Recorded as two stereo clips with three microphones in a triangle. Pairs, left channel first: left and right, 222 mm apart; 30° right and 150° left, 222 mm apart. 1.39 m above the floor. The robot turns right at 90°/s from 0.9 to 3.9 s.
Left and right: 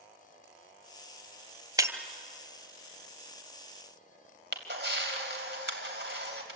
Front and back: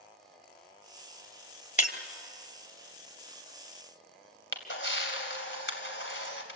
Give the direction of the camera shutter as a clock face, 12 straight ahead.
2 o'clock.